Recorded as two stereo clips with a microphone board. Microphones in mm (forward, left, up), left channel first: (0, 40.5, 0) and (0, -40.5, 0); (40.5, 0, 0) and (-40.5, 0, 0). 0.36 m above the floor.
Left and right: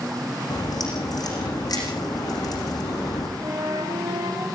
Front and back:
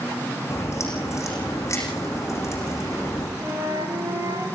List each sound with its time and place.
0.5 s a crack: 55° left, 8.5 m
3.4 s a flute: 125° right, 5.5 m